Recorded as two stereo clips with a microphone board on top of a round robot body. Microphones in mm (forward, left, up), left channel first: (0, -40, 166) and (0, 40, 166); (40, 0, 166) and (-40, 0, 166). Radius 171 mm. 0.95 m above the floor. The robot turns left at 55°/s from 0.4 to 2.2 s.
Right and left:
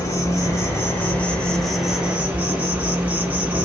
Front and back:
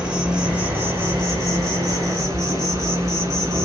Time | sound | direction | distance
0.0 | an insect | 105° right | 1.2 m